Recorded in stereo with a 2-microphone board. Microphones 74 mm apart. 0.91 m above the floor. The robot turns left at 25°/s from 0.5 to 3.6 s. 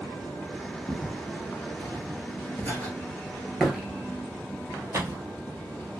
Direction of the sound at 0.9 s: 15° left (ahead or behind).